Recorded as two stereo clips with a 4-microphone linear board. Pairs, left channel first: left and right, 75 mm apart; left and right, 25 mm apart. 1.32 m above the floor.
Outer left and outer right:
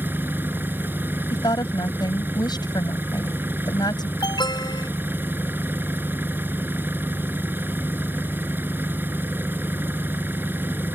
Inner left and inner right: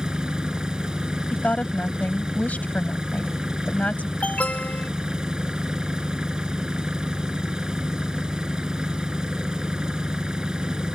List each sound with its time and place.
0.0 s an engine running: 25° right (ahead or behind)
1.3 s a woman speaking: 65° left (ahead or behind)
4.2 s an alarm: 70° left (ahead or behind)